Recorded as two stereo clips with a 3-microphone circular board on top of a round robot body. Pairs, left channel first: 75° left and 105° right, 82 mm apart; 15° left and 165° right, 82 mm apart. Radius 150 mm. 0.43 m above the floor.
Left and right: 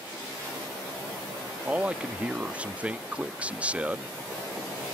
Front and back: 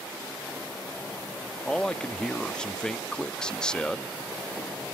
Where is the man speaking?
50° right.